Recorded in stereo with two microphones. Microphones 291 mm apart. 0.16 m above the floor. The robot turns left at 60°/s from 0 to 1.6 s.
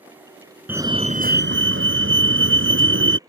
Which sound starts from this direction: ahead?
A fire alarm, at 0.7 s.